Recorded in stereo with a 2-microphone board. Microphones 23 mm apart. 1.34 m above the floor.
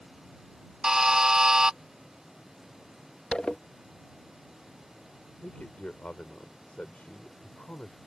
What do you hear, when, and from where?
0.8 s a buzzer: 30° right (ahead or behind)
3.3 s a zipper: 45° left (ahead or behind)
5.4 s a man speaking: 80° left